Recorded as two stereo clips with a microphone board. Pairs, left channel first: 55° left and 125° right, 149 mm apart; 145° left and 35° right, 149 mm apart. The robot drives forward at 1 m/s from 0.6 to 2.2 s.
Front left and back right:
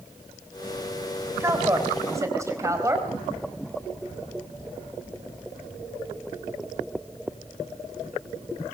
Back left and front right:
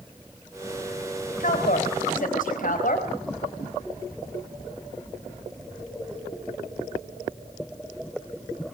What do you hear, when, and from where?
1.4 s a woman speaking: 165° left, 3.5 m